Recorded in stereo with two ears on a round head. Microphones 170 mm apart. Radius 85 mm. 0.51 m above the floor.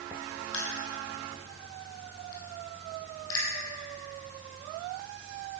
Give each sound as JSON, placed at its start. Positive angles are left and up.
{"t": 0.5, "sound": "crushing", "side_deg": 85, "distance_m": 3.0}